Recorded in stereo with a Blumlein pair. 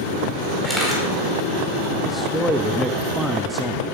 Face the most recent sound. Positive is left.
turn(degrees=0)